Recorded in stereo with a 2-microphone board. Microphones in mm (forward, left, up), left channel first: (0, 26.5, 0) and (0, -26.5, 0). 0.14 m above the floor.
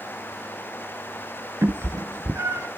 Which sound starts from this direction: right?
A cat meowing, at 1.6 s.